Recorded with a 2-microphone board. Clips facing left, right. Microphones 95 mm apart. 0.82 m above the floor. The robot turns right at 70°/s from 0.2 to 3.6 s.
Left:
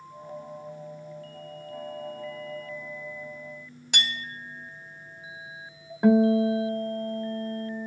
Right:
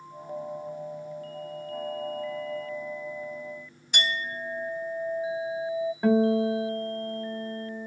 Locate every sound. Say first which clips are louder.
3.9 s a clink: right 4 dB; 75° left (ahead or behind), 1.9 m
6.0 s a guitar: left 3 dB; 15° left (ahead or behind), 1.3 m